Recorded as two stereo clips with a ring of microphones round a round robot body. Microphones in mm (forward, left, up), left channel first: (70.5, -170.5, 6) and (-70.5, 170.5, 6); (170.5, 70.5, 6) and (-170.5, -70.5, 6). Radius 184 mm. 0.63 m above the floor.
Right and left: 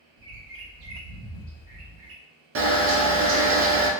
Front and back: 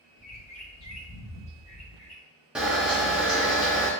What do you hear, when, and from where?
0.2 s a bird: 85° left, 1.2 m
2.5 s a camera shutter: 115° left, 0.6 m